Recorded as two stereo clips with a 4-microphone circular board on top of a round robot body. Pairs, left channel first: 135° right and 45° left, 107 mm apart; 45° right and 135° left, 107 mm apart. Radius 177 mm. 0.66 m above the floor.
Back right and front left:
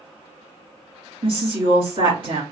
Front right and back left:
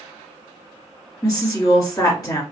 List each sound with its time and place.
1.2 s a woman speaking: 15° left, 2 m